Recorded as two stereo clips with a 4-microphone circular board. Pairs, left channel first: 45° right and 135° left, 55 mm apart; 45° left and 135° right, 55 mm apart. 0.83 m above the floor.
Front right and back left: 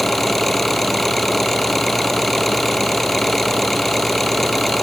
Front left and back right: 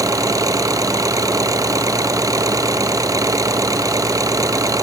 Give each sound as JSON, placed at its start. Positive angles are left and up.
{"t": 0.0, "sound": "an engine running", "azimuth_deg": -130}